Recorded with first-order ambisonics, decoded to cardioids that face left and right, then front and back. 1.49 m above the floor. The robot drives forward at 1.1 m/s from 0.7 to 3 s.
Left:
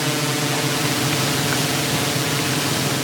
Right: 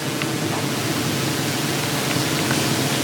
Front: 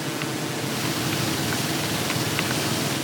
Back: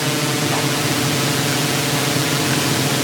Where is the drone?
150° left; by 3.0 s straight behind.